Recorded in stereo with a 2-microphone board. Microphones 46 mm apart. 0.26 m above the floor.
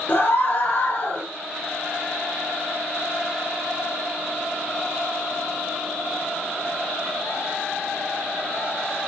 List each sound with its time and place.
0.1 s a scream: 45° left (ahead or behind), 7 m